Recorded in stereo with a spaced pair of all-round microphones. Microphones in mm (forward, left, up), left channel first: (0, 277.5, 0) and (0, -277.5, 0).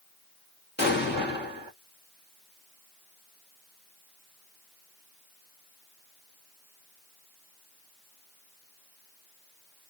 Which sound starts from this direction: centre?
An explosion, at 0.8 s.